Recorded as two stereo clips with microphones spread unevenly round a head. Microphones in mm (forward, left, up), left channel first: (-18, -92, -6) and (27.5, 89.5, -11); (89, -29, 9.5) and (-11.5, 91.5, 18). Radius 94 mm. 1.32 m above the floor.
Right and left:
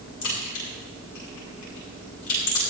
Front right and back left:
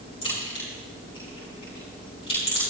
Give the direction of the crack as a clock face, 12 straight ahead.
4 o'clock.